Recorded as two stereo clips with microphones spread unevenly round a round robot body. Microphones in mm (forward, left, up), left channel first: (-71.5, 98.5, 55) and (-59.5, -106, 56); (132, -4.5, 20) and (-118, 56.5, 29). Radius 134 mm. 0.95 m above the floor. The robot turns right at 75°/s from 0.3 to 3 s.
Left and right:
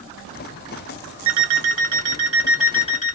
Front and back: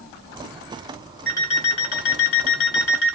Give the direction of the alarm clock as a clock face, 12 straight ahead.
3 o'clock.